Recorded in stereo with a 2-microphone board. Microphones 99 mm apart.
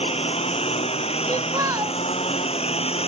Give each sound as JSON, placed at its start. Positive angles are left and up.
{"t": 0.0, "sound": "a lawn mower", "side_deg": 85}
{"t": 1.3, "sound": "a child speaking", "side_deg": -35}